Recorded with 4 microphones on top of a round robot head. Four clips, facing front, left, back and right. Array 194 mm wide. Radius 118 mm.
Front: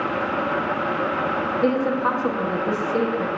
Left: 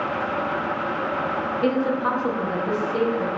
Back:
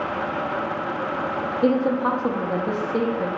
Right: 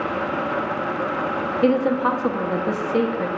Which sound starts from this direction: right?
A woman speaking, at 1.6 s.